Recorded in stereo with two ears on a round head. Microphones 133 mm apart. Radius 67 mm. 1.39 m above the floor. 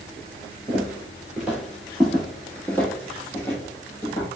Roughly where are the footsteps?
Centre.